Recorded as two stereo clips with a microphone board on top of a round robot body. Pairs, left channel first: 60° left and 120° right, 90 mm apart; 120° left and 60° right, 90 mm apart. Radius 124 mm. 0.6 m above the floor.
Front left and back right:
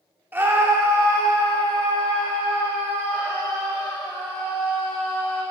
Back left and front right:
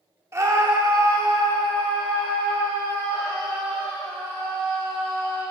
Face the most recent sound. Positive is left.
turn(degrees=-75)